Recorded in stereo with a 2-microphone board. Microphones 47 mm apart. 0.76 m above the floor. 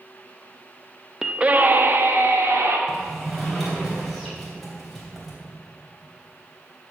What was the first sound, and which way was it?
A scream, 10° right (ahead or behind).